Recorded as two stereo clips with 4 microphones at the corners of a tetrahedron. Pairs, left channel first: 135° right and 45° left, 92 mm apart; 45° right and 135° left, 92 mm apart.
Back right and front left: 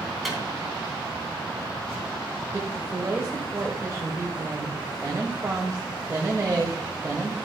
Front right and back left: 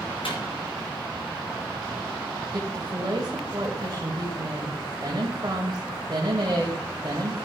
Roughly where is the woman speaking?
Left.